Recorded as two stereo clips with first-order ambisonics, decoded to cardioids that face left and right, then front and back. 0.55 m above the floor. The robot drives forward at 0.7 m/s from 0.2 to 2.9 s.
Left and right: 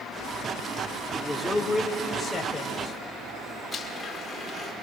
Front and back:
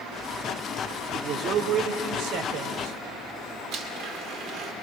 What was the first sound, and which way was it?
A man speaking, 175° left.